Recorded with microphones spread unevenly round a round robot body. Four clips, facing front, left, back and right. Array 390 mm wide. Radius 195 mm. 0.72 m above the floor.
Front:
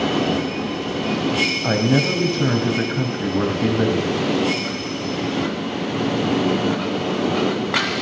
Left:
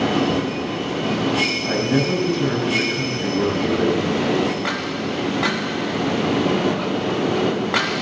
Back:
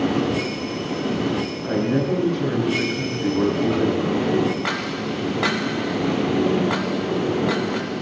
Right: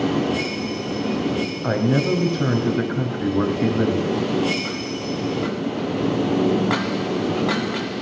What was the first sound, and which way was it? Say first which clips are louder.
A man speaking: right 1 dB, front 2 dB; 35° right.